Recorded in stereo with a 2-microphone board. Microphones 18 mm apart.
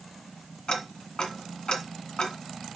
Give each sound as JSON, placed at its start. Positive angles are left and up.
{"t": 0.7, "sound": "ticking", "side_deg": 55, "distance_m": 1.5}